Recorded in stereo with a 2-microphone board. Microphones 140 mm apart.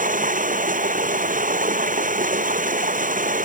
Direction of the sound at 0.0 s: 85° right.